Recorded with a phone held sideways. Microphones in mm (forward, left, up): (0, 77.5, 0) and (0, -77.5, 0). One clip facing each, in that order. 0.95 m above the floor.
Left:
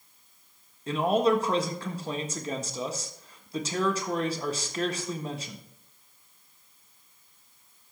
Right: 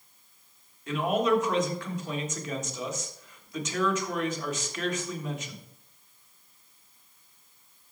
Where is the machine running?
No machine running in this recording.